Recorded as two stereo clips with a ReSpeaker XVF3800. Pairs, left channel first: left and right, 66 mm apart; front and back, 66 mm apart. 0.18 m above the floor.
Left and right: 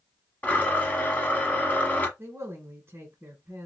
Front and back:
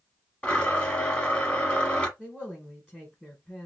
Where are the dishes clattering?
I don't hear dishes clattering.